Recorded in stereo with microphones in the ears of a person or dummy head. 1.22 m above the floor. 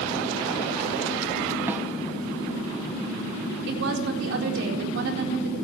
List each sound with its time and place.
1.7 s a snare drum: 10° right (ahead or behind), 0.7 m
3.7 s a woman speaking: 70° right (ahead or behind), 4 m